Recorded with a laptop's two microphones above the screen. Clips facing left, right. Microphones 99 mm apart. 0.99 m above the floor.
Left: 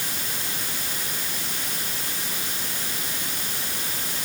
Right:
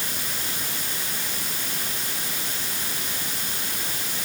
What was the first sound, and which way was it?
Only background noise.